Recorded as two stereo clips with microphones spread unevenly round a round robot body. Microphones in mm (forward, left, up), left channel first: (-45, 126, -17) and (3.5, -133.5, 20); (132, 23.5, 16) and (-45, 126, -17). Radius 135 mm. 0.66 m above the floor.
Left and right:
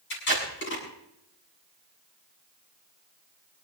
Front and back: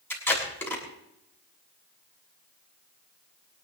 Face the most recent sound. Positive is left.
turn(degrees=50)